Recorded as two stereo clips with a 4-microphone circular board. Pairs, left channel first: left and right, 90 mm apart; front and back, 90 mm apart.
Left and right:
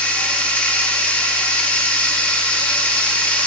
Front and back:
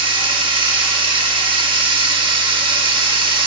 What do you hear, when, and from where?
0.0 s running water: 165° left, 1.5 m